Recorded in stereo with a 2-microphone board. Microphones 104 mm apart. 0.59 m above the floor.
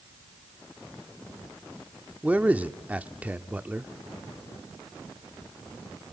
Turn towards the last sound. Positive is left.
turn(degrees=-15)  # may be behind; listen again after turning